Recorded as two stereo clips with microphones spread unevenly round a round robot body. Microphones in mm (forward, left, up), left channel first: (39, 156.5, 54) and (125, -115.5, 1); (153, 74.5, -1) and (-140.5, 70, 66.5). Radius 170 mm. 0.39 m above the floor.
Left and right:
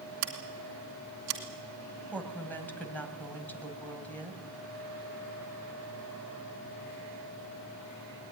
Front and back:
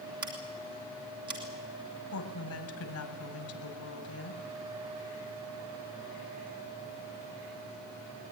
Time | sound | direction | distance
0.2 | scissors | 100° right | 2.5 m
2.1 | a woman speaking | 20° left | 3 m